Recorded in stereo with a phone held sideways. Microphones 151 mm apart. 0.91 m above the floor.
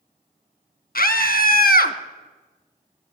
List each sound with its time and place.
0.9 s a scream: 75° left (ahead or behind), 1.1 m